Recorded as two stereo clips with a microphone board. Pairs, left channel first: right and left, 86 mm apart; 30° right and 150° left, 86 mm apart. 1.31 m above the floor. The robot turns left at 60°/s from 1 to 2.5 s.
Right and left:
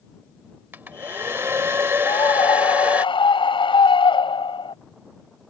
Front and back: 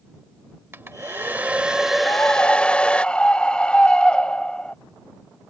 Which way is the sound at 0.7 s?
125° left.